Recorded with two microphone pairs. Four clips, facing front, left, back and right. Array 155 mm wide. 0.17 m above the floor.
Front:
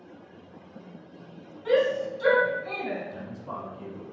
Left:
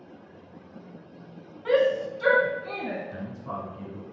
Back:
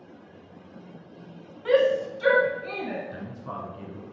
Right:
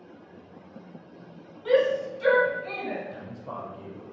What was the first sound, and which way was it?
A shout, 140° left.